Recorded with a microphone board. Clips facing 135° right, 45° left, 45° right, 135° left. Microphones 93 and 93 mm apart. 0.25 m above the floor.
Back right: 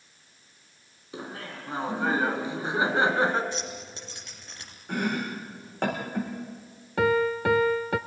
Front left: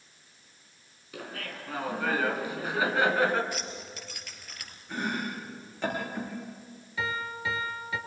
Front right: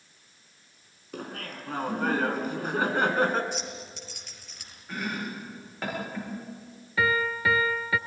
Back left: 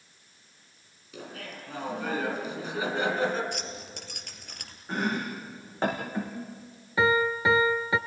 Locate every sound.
1.1 s laughter: 70° right, 3.5 m
3.5 s keys jangling: 165° left, 3 m
4.9 s chopping: 165° right, 7.5 m
7.0 s a piano: 155° right, 0.8 m